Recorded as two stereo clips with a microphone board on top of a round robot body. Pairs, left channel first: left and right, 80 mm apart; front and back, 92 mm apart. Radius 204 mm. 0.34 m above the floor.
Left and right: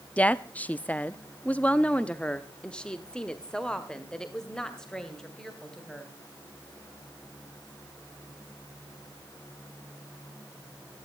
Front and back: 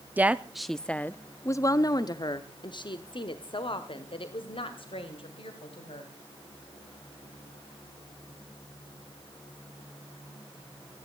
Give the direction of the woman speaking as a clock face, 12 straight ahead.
7 o'clock.